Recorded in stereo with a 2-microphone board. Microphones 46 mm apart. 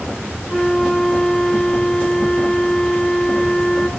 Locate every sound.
0.5 s a flute: 15° left (ahead or behind), 1.8 m